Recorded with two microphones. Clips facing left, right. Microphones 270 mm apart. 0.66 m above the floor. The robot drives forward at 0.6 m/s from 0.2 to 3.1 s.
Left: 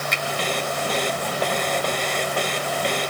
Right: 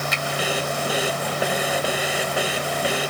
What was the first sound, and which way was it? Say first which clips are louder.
A finger snap: right 1 dB; 5° right (ahead or behind).